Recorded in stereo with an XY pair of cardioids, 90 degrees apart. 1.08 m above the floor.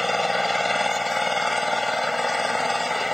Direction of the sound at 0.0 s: 10° left.